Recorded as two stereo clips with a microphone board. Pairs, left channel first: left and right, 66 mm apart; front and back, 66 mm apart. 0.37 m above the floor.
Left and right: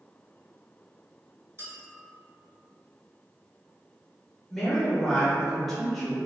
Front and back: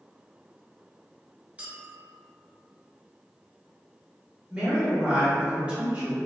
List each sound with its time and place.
1.6 s a clink: 115° right, 0.9 m
4.5 s a woman speaking: 165° left, 1.2 m